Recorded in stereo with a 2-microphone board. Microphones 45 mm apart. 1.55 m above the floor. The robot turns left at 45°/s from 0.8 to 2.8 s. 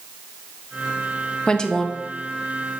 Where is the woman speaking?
25° left (ahead or behind), 0.6 m; by 2.0 s 5° left (ahead or behind), 0.6 m.